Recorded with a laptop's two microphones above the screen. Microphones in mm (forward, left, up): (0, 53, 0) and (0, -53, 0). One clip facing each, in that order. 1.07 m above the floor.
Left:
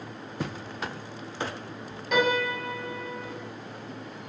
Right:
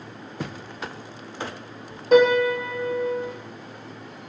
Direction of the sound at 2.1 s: 35° right (ahead or behind).